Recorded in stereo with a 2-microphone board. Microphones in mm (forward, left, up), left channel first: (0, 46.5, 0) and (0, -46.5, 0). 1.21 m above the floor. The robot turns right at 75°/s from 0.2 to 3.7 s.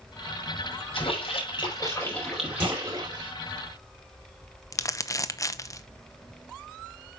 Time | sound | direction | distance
0.9 | a splash | 75° left | 5 m
2.6 | a clunk | 60° right (ahead or behind) | 4 m
4.7 | crumpling | 35° left (ahead or behind) | 0.8 m